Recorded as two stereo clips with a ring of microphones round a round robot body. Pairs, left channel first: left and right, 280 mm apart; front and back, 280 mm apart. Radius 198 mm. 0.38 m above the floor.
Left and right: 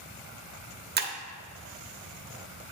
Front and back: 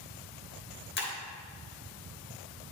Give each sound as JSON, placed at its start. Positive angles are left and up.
{"t": 1.0, "sound": "breaking glass", "azimuth_deg": -45, "distance_m": 0.9}